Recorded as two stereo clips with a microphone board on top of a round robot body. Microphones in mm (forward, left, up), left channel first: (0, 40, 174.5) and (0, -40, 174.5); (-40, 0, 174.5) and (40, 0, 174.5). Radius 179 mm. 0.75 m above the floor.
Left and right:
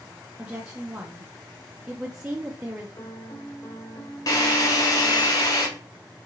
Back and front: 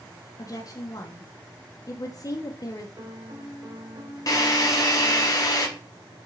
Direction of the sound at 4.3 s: 130° left.